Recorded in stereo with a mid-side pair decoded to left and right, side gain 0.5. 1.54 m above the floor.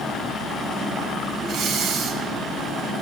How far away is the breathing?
About 1.3 m.